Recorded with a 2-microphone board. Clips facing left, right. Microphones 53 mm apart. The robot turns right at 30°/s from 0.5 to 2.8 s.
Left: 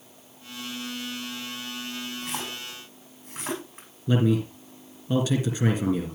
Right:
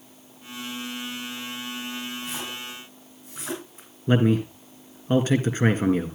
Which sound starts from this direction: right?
A man speaking, at 4.1 s.